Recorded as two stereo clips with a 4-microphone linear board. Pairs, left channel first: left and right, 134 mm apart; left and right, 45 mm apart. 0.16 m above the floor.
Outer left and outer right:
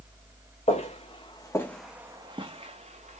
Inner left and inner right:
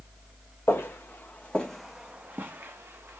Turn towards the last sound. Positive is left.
turn(degrees=-60)  # may be behind; listen again after turning